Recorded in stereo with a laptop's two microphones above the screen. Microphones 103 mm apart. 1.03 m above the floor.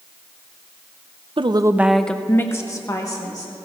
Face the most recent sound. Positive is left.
turn(degrees=35)  # may be behind; listen again after turning